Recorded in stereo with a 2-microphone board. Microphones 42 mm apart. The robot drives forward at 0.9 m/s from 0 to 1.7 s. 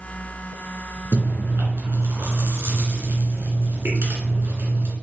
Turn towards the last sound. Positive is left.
turn(degrees=-70)  # may be behind; listen again after turning